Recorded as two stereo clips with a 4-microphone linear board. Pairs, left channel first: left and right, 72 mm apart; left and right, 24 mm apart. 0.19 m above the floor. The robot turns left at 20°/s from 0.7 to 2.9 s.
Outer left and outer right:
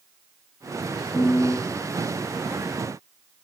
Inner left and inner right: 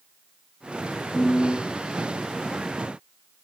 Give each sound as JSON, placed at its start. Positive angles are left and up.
{"t": 1.1, "sound": "a piano", "side_deg": 25, "distance_m": 0.8}